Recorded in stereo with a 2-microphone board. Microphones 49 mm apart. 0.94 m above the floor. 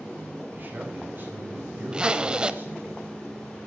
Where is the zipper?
20° right (ahead or behind), 0.8 m.